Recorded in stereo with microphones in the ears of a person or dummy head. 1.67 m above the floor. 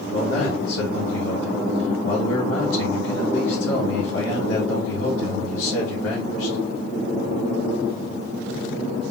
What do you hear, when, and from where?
0.1 s a man speaking: 80° left, 2.5 m